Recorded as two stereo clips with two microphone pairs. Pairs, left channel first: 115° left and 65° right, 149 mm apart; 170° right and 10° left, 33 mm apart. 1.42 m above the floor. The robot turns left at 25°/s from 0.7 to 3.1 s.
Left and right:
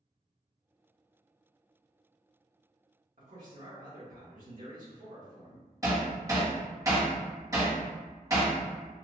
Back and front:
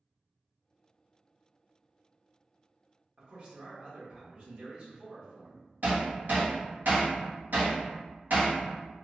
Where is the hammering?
Straight ahead, 1.3 m.